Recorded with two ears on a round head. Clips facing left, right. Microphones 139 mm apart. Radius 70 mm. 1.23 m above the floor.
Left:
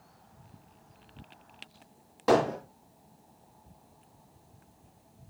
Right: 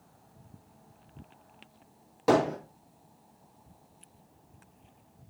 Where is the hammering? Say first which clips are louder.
Even; 15° right (ahead or behind), 5.5 m.